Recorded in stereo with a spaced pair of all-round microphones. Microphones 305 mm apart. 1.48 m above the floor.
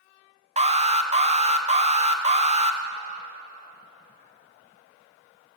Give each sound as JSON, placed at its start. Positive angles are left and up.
{"t": 0.6, "sound": "an alarm", "side_deg": -20, "distance_m": 1.4}